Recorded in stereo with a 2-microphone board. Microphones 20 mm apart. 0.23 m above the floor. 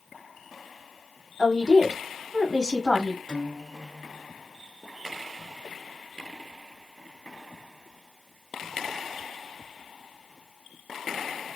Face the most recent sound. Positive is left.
turn(degrees=-20)  # may be behind; listen again after turning